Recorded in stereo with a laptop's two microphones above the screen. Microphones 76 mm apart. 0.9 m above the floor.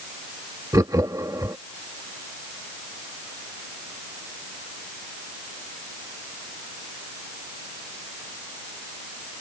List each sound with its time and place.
0.7 s laughter: 50° right (ahead or behind)